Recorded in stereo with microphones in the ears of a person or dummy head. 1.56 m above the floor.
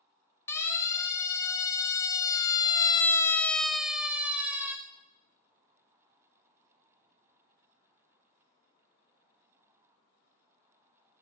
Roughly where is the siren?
Centre.